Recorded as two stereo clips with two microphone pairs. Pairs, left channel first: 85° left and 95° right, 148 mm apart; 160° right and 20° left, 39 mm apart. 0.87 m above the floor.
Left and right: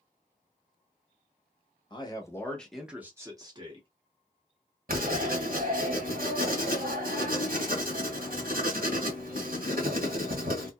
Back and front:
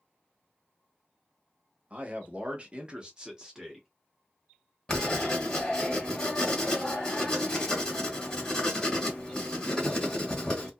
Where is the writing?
95° right, 1.4 m.